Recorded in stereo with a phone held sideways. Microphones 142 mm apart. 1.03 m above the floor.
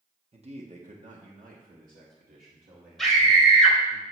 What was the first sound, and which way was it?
A man speaking, 45° right (ahead or behind).